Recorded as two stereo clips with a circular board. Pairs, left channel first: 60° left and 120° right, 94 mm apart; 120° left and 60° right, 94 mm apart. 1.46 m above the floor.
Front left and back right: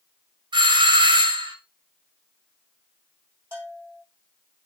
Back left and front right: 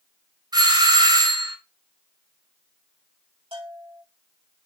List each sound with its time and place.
0.5 s a doorbell: 90° right, 1.9 m
3.5 s a bell: 55° right, 6 m